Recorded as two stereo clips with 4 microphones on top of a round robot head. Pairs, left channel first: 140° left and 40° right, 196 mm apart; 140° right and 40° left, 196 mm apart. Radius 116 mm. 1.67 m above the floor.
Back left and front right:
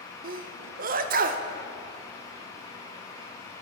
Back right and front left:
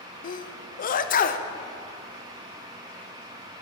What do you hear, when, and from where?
0.2 s a sneeze: 90° right, 0.6 m